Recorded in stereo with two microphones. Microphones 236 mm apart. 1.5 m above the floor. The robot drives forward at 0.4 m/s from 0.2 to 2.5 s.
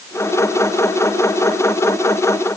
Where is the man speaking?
No man speaking in this recording.